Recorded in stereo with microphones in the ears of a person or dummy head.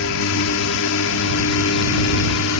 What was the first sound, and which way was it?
A drone, 75° left (ahead or behind).